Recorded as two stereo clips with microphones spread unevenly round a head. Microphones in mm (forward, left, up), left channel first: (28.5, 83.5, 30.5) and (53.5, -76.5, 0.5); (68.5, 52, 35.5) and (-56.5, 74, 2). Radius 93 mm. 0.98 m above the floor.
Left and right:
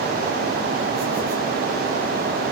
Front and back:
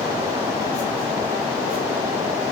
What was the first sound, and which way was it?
Only background noise.